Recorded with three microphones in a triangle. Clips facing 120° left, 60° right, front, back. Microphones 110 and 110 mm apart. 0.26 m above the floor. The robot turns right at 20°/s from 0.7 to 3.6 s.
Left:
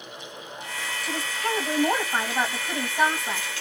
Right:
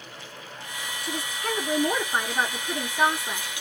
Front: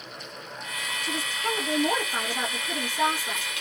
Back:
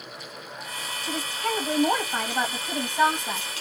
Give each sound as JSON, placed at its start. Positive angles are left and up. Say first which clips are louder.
{"t": 1.0, "sound": "a woman speaking", "louder": "left 2 dB, back 2 dB", "azimuth_deg": 130, "distance_m": 1.8}